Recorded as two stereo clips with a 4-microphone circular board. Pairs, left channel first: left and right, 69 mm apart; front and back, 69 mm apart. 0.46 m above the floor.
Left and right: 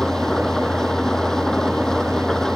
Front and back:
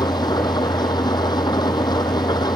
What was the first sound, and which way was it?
An engine running, 5° left.